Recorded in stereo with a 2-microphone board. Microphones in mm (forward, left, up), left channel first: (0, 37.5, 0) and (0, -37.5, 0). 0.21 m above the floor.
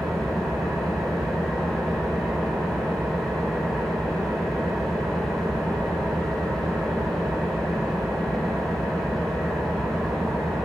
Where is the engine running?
5° left (ahead or behind), 5.5 m.